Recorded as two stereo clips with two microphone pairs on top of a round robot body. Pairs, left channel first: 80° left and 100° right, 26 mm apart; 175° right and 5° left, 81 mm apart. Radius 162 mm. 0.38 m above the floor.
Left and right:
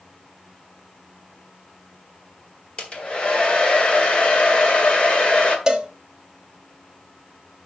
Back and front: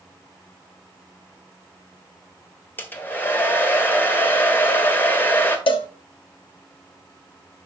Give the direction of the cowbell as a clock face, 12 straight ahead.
6 o'clock.